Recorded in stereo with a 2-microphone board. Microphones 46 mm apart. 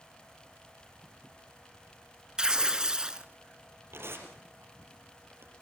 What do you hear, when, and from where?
2.4 s tearing paper: 15° right (ahead or behind), 0.7 m
3.9 s tearing paper: 65° right (ahead or behind), 3.5 m